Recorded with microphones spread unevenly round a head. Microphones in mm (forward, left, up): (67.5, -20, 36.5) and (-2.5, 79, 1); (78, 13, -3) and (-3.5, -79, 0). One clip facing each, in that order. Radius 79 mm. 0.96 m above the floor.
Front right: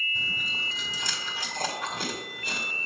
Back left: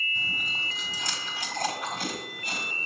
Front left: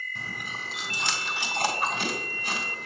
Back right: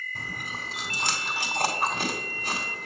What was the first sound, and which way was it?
Chewing, 85° right.